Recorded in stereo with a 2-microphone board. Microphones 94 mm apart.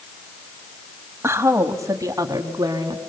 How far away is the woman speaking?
About 1.3 m.